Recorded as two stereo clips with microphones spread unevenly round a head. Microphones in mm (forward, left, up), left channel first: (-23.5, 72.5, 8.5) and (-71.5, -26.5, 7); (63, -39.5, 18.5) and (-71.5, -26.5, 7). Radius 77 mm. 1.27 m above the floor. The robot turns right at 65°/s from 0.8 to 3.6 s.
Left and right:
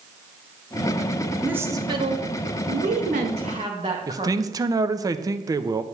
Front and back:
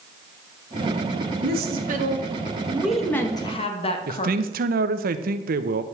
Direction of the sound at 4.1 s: 175° right.